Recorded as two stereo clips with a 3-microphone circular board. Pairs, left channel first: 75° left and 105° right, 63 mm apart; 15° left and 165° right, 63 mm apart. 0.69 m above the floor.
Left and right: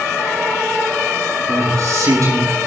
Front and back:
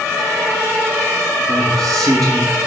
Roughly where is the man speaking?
Behind right.